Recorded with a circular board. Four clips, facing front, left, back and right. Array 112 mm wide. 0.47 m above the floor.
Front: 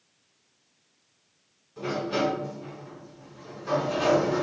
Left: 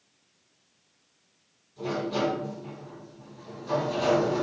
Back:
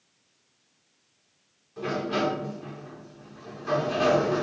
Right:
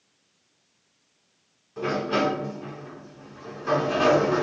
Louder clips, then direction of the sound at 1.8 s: Right 4 dB, even; 95° right.